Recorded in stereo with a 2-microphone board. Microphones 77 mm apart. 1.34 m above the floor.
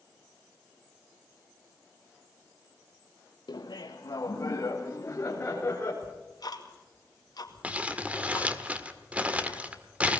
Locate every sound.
3.5 s laughter: 90° left, 1.6 m; by 5.9 s 20° left (ahead or behind), 4 m
6.0 s ticking: 65° left (ahead or behind), 2 m
7.6 s crumpling: 20° right (ahead or behind), 1.3 m